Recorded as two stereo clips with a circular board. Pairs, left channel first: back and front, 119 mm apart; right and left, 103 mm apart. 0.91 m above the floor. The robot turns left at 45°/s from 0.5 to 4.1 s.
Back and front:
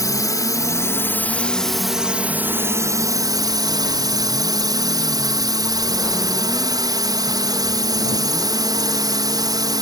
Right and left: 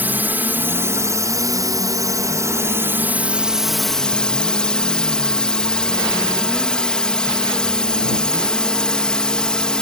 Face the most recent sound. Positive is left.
turn(degrees=-15)